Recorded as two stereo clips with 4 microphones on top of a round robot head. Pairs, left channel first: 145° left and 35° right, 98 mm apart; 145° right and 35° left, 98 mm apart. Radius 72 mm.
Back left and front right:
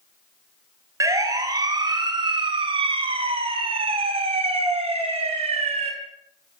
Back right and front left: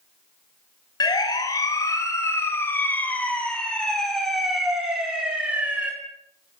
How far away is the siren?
About 6.5 m.